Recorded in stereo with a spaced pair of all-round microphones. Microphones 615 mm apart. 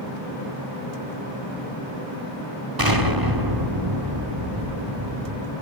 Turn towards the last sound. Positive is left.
turn(degrees=-35)  # may be behind; listen again after turning